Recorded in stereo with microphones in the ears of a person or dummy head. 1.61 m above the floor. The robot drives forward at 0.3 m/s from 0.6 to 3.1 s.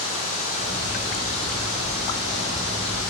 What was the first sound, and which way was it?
Running water, 40° left (ahead or behind).